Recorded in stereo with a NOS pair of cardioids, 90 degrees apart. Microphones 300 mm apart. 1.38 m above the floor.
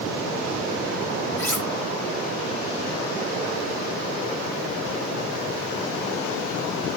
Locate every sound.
1.4 s cutlery clinking: 10° left, 3 m